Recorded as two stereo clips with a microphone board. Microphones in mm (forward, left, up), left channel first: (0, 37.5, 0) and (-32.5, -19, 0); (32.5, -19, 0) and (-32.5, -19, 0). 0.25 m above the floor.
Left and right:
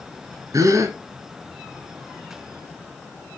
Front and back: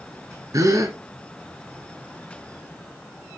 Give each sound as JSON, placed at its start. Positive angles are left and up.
{"t": 0.5, "sound": "a gasp", "azimuth_deg": -150, "distance_m": 1.3}